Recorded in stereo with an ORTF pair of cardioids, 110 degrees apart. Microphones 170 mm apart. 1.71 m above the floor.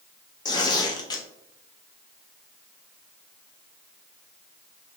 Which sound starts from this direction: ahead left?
Tearing paper, at 0.5 s.